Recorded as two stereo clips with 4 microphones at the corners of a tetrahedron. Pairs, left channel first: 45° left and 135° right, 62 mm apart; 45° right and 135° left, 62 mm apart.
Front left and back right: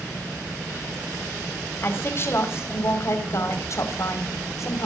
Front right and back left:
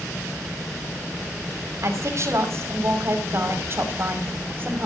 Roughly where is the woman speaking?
Left.